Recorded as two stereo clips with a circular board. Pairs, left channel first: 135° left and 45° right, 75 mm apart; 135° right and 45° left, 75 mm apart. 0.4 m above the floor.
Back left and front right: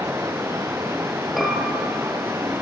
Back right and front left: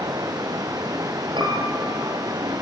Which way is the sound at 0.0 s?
10° left.